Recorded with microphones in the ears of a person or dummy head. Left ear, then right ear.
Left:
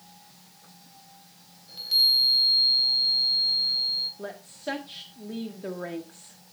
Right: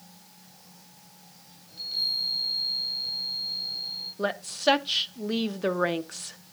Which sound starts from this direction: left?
A chime, at 1.7 s.